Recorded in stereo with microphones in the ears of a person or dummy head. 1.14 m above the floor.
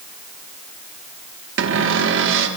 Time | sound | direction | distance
1.6 | a cupboard door | 55° right (ahead or behind) | 1.3 m